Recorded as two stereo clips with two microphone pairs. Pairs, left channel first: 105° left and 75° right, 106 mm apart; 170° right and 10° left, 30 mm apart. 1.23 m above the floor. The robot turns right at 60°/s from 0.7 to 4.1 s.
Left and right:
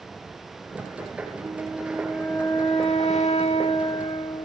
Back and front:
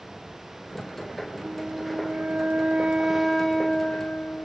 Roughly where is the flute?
Ahead.